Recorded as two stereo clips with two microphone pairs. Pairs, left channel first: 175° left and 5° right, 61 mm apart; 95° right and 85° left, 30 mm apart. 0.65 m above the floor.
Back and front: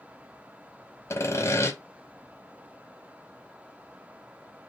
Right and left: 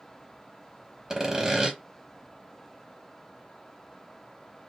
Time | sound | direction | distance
1.1 | sawing | 150° left | 0.9 m